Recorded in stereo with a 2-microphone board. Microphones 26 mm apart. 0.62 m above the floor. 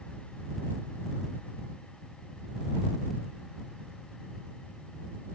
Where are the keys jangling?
No keys jangling in this recording.